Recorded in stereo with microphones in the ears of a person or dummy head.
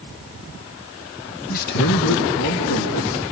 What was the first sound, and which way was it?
A man speaking, 50° left (ahead or behind).